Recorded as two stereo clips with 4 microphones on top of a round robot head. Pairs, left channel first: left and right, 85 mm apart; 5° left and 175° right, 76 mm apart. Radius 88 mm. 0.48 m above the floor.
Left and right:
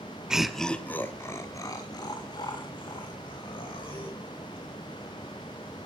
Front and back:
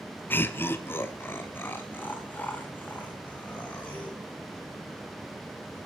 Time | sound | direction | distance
0.3 | laughter | 15° right | 1.1 m